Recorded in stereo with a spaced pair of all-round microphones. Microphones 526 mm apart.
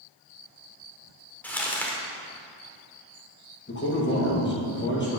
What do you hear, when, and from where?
1.4 s crumpling: 5° left (ahead or behind), 1.1 m
3.7 s a man speaking: 20° left (ahead or behind), 1.7 m